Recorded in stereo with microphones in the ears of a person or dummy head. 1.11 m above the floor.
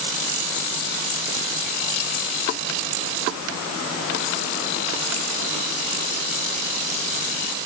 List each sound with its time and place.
Only background noise.